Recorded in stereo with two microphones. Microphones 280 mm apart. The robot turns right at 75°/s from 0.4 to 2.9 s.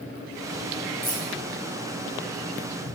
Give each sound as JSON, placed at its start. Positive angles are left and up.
{"t": 1.0, "sound": "keys jangling", "side_deg": 35, "distance_m": 3.0}